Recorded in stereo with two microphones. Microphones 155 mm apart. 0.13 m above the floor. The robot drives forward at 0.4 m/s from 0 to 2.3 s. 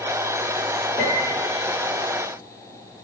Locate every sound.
1.0 s a piano: 55° left (ahead or behind), 5 m